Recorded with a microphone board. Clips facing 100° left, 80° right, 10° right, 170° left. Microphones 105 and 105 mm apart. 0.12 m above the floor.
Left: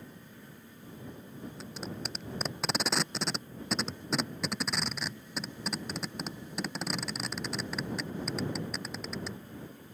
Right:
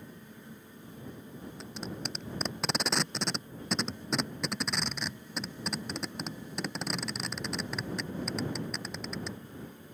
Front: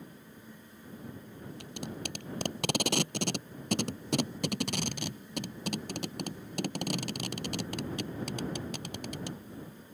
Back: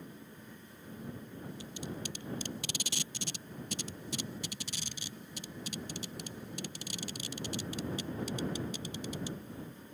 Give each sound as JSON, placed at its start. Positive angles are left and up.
{"t": 1.6, "sound": "tape being pulled", "azimuth_deg": 15}